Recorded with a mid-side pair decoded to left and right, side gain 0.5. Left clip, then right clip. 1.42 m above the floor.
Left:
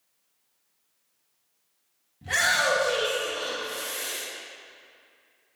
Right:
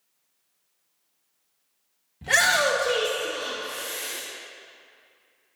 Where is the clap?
I don't hear a clap.